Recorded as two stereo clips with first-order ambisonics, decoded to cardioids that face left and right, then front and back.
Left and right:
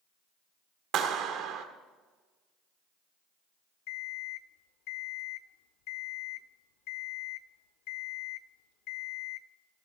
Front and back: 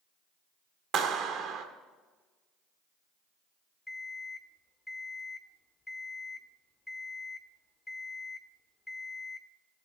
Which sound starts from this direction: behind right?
A clap, at 0.9 s.